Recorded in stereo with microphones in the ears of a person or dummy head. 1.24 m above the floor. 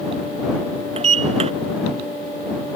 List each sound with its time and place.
1.0 s a sliding door: 35° right (ahead or behind)